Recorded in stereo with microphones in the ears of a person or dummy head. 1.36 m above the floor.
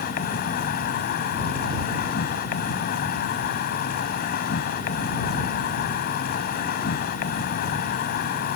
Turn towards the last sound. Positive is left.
turn(degrees=50)  # may be behind; listen again after turning